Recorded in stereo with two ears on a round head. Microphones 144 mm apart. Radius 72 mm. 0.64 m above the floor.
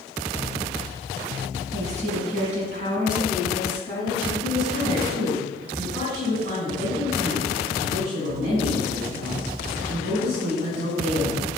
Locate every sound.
1.7 s a woman speaking: 40° right (ahead or behind), 6 m; by 4.3 s 55° right (ahead or behind), 7.5 m
4.4 s a woman speaking: 65° right (ahead or behind), 6 m